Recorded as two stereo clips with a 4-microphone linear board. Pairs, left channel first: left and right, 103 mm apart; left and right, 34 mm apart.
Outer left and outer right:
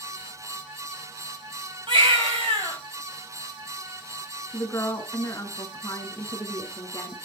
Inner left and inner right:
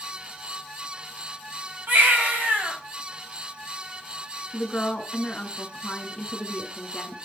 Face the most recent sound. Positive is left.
turn(degrees=25)  # may be behind; listen again after turning